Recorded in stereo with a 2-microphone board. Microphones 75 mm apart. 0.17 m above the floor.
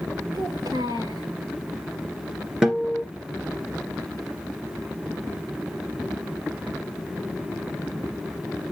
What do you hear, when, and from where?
0.3 s a child speaking: 70° right (ahead or behind), 1.8 m
2.6 s a guitar: 10° right (ahead or behind), 2.5 m